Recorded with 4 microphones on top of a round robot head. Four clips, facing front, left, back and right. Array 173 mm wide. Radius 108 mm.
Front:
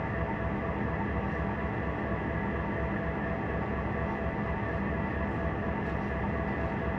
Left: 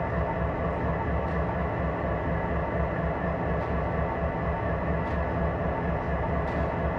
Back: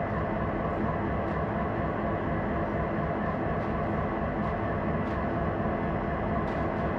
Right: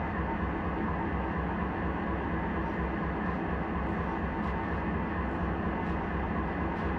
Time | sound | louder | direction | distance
0.0 | an engine running | left 4 dB, back 3 dB | 115° left | 1.9 m